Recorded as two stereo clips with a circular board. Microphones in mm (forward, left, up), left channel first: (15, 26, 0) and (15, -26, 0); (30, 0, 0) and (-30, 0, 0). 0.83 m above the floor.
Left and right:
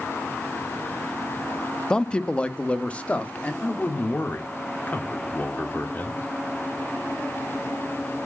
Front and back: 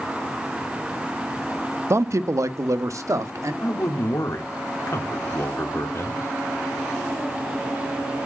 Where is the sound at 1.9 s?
160° left, 0.5 m; by 3.5 s 150° left, 1.4 m.